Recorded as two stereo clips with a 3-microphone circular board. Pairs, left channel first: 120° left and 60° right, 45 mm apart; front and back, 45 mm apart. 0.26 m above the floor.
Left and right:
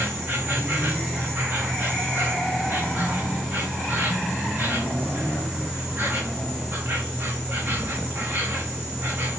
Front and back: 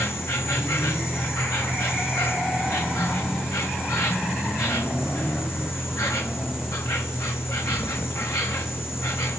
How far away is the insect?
About 1.7 m.